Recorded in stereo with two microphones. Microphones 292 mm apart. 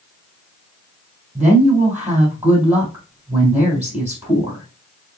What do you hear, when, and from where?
1.4 s a woman speaking: 10° right (ahead or behind), 3 m